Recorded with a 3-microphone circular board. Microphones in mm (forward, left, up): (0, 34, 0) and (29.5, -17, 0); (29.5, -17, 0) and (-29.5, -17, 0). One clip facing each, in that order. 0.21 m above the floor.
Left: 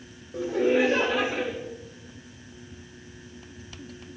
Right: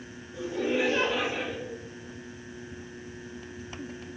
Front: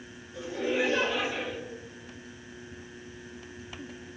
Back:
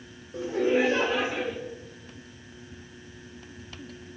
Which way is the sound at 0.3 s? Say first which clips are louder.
Left 6 dB, back 5 dB; 140° left.